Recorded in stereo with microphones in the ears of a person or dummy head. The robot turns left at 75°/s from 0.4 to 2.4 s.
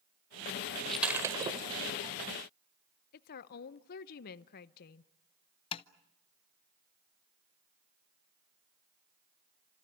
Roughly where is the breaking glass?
Centre.